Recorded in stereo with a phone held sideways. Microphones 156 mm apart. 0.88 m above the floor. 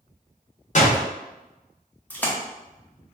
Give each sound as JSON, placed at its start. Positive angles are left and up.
{"t": 0.8, "sound": "a door slam", "side_deg": 50, "distance_m": 0.7}
{"t": 2.1, "sound": "a splash", "side_deg": 10, "distance_m": 0.6}